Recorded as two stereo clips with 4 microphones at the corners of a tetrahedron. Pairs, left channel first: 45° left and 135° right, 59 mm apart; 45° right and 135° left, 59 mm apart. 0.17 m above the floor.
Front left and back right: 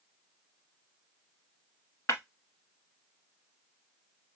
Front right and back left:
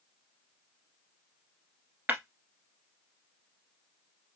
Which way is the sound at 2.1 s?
75° left.